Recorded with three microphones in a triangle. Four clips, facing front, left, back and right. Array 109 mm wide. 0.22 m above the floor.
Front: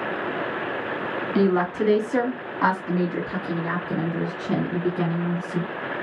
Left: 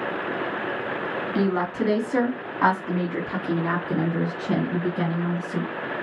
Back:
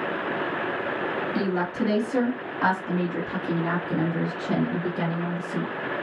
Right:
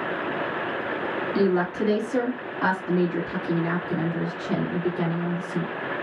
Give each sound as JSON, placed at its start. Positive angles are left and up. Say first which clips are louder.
{"t": 1.4, "sound": "a woman speaking", "louder": "right 1 dB, front 8 dB", "azimuth_deg": 20, "distance_m": 1.7}